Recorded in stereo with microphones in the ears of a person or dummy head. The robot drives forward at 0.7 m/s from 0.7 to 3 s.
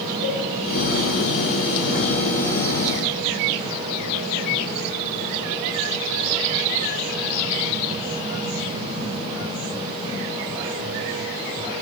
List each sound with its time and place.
0.2 s a cowbell: 45° left (ahead or behind), 1.4 m